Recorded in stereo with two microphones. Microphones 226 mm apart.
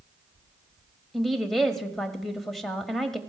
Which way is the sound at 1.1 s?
Centre (ahead or behind).